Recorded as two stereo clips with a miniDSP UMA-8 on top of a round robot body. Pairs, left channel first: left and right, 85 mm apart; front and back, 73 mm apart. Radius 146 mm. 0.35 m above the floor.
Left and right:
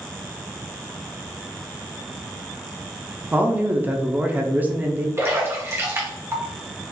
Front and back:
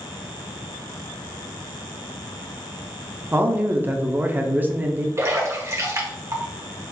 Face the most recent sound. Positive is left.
turn(degrees=-140)